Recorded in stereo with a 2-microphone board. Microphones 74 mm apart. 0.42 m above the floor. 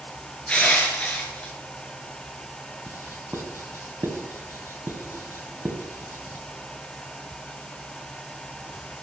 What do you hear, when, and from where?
0.5 s crushing: 15° left (ahead or behind), 5 m
2.9 s writing: 35° right (ahead or behind), 2 m